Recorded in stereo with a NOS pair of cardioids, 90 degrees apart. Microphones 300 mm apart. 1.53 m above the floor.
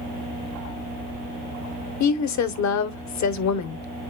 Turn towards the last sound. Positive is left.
turn(degrees=60)